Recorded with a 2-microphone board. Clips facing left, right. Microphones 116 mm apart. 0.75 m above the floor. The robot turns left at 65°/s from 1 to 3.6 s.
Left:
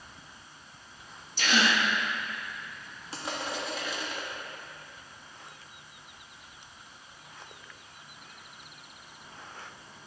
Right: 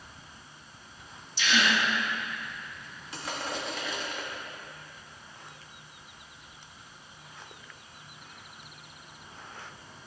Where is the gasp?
60° left, 0.7 m; by 1.8 s 30° left, 0.7 m.